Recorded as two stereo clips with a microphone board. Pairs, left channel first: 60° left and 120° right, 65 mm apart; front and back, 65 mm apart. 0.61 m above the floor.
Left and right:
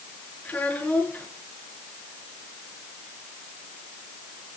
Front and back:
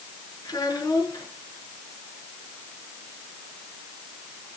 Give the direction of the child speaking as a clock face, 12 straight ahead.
12 o'clock.